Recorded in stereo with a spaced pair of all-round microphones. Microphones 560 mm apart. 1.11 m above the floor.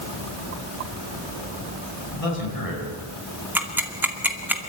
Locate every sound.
2.1 s a man speaking: 80° left, 9 m
3.5 s ticking: 5° right (ahead or behind), 2.5 m